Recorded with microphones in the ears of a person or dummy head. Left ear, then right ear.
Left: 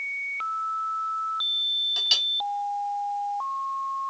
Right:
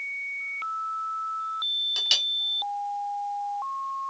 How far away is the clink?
About 0.6 m.